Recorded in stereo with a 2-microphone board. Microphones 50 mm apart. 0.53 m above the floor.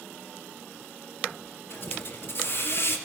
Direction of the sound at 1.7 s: 45° left (ahead or behind).